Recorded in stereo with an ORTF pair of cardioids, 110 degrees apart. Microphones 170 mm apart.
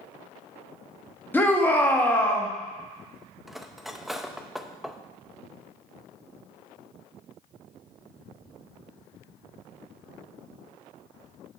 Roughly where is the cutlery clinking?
Ahead.